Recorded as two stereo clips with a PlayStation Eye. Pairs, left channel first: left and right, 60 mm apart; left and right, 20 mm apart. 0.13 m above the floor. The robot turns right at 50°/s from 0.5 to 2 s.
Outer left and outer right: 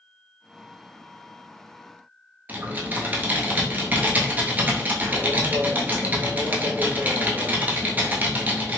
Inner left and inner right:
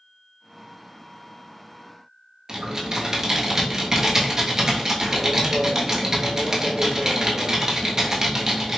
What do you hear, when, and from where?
2.5 s typing on a keyboard: 25° right (ahead or behind), 0.7 m